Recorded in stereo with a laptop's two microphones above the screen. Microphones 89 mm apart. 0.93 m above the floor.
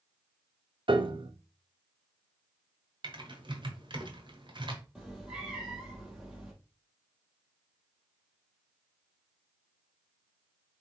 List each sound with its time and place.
0.9 s a piano: 65° right (ahead or behind), 0.8 m
3.0 s typing on a keyboard: 65° right (ahead or behind), 1.4 m
5.0 s a cat meowing: 5° right (ahead or behind), 2.5 m